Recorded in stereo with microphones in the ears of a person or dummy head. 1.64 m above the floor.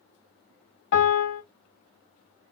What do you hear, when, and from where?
0.9 s a piano: 60° left (ahead or behind), 1.3 m